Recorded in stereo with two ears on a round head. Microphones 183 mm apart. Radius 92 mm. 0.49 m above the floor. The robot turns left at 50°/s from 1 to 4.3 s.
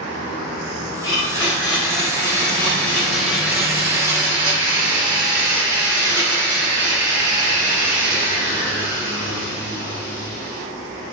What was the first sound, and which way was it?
A blender, 20° left (ahead or behind).